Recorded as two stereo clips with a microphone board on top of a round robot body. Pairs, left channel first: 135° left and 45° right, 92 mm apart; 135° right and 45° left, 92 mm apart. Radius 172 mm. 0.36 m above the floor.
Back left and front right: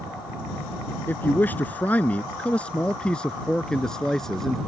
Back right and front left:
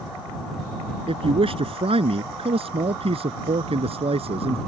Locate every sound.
1.1 s a man speaking: 65° left; by 4.6 s 50° left